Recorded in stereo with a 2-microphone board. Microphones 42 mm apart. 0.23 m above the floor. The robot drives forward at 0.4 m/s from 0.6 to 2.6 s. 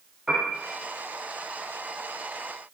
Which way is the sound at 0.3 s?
10° right (ahead or behind).